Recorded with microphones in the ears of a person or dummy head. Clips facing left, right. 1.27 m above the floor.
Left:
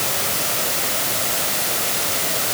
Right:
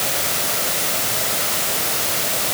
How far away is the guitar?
No guitar in this recording.